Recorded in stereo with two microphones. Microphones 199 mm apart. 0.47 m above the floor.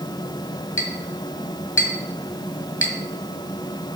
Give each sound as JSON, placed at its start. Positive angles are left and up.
{"t": 0.8, "sound": "a clink", "side_deg": 70, "distance_m": 2.0}